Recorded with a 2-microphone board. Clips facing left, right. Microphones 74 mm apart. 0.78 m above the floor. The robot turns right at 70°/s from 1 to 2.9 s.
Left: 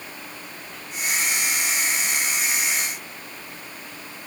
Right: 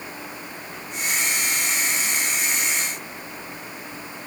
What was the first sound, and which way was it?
Only background noise.